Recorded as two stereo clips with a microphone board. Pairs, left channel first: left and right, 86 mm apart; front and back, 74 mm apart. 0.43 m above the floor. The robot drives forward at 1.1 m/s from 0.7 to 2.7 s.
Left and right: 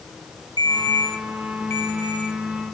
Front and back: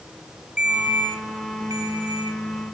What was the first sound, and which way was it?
A ringtone, 105° left.